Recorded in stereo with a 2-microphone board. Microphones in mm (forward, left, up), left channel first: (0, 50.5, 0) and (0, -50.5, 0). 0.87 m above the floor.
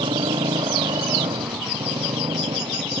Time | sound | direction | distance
0.0 | a motorcycle | 60° right (ahead or behind) | ?